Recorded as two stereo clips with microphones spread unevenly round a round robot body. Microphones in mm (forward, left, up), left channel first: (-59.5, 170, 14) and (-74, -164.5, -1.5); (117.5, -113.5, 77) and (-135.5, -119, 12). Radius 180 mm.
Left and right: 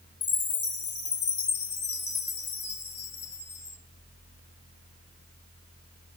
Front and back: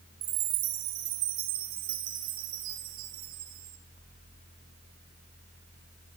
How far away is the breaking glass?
No breaking glass in this recording.